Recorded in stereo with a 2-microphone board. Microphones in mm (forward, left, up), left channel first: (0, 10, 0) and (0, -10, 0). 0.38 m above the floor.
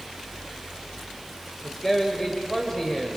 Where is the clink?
No clink in this recording.